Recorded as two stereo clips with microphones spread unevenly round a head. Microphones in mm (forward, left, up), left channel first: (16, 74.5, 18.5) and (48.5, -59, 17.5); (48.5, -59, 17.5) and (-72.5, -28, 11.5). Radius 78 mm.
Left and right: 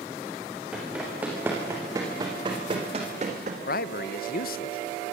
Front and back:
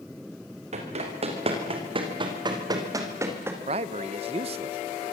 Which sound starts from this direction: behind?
Running footsteps, at 0.7 s.